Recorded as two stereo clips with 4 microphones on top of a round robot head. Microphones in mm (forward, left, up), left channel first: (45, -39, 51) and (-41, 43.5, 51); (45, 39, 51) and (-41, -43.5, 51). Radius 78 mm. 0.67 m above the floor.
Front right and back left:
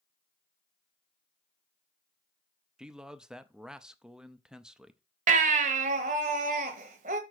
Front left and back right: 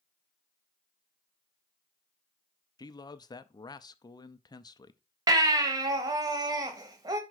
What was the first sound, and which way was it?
A man speaking, 55° left.